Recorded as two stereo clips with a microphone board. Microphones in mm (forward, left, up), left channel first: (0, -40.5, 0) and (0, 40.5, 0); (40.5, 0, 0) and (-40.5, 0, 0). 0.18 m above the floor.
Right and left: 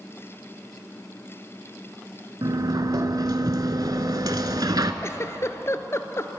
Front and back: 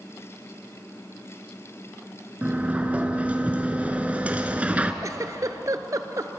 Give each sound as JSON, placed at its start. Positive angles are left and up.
{"t": 2.4, "sound": "a sliding door", "azimuth_deg": 110, "distance_m": 0.9}
{"t": 5.0, "sound": "a giggle", "azimuth_deg": -140, "distance_m": 0.6}